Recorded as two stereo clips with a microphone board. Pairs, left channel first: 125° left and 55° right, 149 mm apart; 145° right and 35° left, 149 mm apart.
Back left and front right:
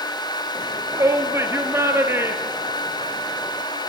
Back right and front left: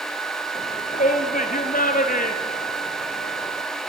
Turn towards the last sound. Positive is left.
turn(degrees=-130)